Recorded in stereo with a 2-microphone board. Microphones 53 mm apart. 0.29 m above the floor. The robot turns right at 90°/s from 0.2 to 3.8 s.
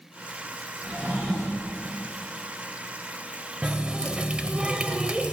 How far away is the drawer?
About 6.5 m.